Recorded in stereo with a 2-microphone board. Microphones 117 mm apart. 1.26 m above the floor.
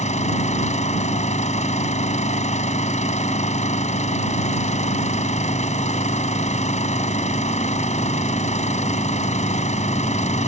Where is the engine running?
85° left.